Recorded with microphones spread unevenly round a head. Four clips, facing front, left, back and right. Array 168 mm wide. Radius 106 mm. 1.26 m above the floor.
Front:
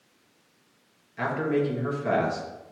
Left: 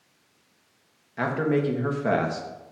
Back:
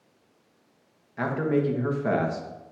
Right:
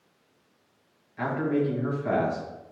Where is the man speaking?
90° left, 1.9 m.